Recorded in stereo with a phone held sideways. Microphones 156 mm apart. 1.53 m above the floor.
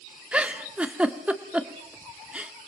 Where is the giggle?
10° right (ahead or behind), 1.5 m.